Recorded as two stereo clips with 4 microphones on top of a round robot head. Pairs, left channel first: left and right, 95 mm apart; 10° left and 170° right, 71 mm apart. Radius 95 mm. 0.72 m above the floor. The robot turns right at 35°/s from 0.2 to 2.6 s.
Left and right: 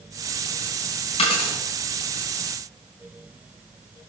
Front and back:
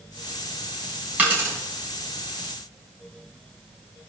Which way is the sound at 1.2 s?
120° left.